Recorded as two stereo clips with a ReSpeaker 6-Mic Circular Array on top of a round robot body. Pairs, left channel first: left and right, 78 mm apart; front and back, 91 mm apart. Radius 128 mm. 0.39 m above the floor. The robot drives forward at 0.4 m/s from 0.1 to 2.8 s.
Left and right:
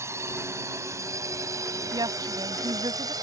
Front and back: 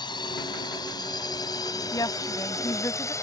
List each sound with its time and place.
0.0 s a drone: 35° right; by 3.2 s 55° right
1.9 s a woman speaking: 50° right; by 3.1 s 60° right